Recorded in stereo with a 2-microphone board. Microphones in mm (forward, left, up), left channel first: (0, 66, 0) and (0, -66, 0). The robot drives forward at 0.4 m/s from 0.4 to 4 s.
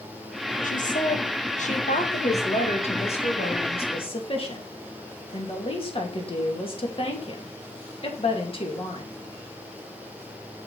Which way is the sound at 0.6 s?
80° left.